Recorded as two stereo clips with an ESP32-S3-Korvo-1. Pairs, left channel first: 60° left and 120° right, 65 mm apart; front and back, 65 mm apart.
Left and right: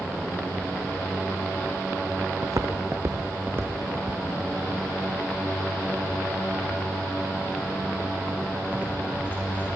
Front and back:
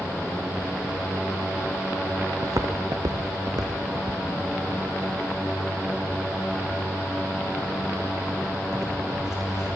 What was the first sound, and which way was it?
Footsteps, 145° right.